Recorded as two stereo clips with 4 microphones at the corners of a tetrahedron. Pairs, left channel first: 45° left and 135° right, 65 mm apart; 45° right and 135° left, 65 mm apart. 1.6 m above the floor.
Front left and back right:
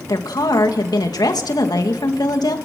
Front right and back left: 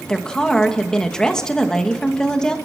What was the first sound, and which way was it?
A woman speaking, 35° left.